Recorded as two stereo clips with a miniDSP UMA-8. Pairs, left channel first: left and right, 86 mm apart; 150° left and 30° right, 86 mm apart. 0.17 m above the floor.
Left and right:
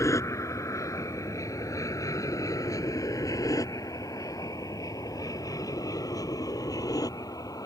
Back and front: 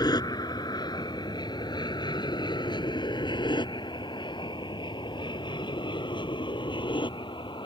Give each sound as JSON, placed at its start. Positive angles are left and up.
{"t": 0.0, "sound": "an aircraft", "azimuth_deg": 130}